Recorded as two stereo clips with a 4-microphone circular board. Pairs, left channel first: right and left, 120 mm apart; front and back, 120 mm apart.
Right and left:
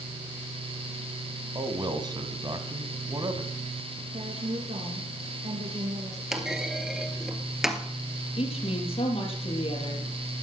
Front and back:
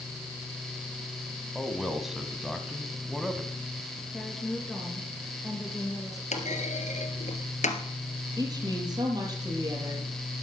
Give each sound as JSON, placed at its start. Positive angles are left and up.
{"t": 1.6, "sound": "a man speaking", "azimuth_deg": 95, "distance_m": 1.6}
{"t": 4.1, "sound": "a woman speaking", "azimuth_deg": 90, "distance_m": 2.5}
{"t": 6.3, "sound": "a clunk", "azimuth_deg": 5, "distance_m": 2.0}
{"t": 8.4, "sound": "a woman speaking", "azimuth_deg": -125, "distance_m": 6.0}